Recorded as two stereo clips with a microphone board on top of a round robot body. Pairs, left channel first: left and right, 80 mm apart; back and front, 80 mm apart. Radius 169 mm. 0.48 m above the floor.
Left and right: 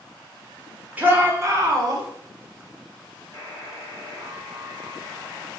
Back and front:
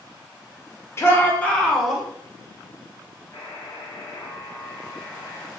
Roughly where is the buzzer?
Behind right.